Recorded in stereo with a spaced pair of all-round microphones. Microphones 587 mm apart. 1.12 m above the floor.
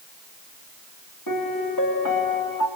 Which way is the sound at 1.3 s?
35° left (ahead or behind).